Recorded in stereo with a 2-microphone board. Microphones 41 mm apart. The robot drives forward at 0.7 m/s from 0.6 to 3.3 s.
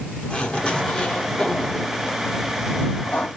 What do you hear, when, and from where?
0.3 s a zipper: 20° left (ahead or behind), 1.9 m; by 3.3 s 35° left (ahead or behind), 1.2 m